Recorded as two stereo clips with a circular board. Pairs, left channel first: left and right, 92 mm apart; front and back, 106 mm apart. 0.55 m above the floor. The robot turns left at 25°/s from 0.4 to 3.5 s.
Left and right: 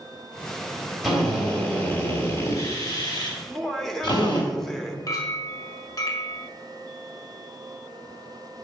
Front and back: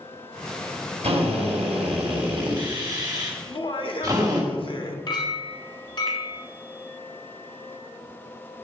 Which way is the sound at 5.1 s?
45° left.